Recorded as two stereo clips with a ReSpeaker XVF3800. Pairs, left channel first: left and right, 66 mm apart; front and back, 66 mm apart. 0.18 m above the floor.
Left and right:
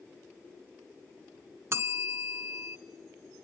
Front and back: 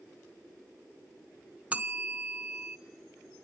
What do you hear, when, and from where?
1.7 s a bell: 115° right, 0.8 m